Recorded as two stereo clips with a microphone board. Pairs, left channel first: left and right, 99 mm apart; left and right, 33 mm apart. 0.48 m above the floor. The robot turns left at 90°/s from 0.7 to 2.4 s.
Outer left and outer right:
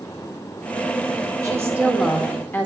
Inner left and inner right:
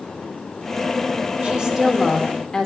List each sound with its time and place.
1.4 s a woman speaking: 125° right, 0.9 m; by 2.7 s 150° left, 0.9 m